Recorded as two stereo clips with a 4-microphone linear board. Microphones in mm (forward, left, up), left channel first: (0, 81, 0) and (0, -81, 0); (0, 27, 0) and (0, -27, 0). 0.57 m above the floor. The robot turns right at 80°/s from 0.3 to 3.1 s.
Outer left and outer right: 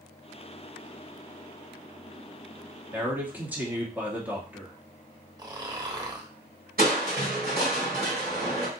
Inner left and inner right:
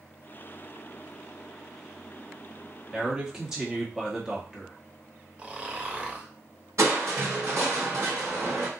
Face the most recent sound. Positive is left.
turn(degrees=-65)  # may be behind; listen again after turning